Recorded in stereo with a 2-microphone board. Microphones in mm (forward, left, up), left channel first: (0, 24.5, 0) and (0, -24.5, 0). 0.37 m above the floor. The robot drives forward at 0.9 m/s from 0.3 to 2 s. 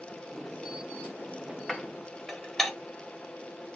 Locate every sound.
1.7 s dishes clattering: 10° left (ahead or behind), 0.6 m; by 2.7 s 5° left (ahead or behind), 0.8 m